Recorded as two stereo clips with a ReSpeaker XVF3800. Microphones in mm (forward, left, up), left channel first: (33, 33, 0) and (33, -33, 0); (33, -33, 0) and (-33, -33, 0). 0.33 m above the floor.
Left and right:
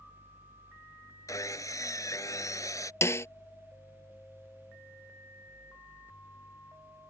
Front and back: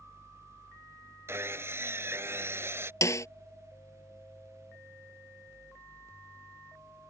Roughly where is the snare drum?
Ahead left.